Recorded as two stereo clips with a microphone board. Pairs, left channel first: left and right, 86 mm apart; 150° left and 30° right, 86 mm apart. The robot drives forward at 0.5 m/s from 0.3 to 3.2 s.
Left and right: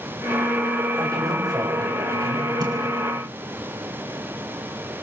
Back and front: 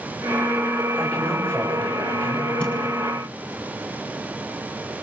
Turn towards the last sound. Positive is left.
turn(degrees=-135)